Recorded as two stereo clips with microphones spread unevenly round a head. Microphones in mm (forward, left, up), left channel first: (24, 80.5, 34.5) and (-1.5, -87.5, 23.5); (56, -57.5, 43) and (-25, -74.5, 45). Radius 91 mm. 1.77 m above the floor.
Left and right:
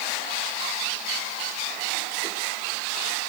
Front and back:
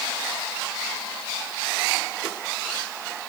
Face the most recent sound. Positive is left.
No sound to turn to.